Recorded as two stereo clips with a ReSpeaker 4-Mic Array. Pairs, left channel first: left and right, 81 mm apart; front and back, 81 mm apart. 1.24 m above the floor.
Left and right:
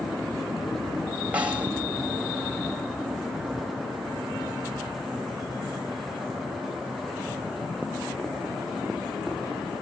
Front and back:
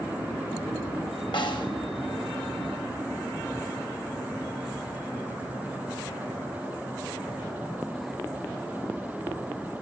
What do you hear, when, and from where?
1.3 s a snare drum: 15° right, 4 m